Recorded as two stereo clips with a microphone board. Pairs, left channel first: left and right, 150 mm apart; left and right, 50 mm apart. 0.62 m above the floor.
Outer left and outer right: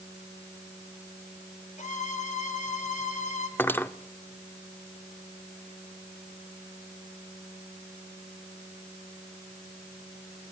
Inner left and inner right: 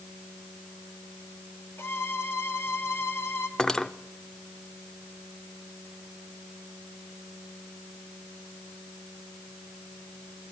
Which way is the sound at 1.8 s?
55° left (ahead or behind).